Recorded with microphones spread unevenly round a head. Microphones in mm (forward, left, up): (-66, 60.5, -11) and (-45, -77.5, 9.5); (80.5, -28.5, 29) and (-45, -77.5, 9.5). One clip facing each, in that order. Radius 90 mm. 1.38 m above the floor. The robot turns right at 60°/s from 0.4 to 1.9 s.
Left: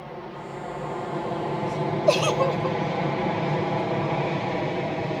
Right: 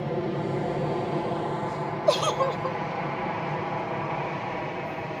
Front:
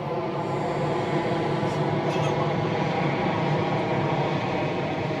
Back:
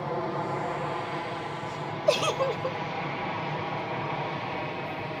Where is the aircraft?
50° right; by 5.2 s 55° left.